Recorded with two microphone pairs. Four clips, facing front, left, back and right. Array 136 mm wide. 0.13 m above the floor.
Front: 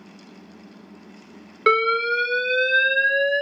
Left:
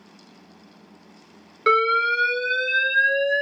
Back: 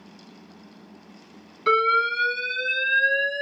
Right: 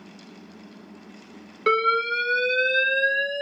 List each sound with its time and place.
1.7 s an alarm: 15° left, 1.3 m